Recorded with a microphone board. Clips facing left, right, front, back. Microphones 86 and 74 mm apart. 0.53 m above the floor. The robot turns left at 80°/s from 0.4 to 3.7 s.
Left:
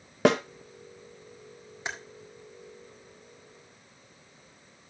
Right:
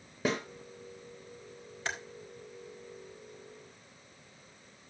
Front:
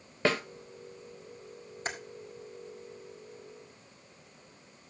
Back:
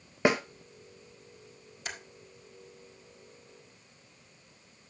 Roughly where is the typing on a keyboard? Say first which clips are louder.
Even, front 4 dB; ahead left.